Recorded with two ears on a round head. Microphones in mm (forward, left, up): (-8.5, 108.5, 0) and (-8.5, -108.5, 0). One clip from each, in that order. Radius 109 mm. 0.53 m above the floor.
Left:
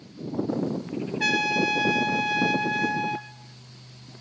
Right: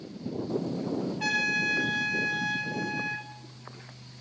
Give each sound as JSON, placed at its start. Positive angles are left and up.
{"t": 1.2, "sound": "a trumpet", "side_deg": 40, "distance_m": 3.0}